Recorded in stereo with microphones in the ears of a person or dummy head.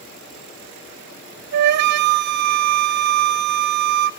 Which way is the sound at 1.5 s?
50° right (ahead or behind).